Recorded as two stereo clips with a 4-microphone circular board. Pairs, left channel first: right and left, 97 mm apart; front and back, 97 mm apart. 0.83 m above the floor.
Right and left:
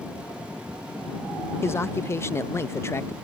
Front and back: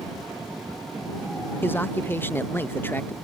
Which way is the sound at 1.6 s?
50° right.